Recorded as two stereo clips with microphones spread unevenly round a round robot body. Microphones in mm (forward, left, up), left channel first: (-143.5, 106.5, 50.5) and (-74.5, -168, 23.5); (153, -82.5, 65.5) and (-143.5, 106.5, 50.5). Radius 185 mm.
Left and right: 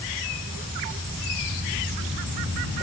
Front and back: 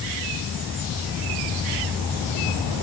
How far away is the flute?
No flute in this recording.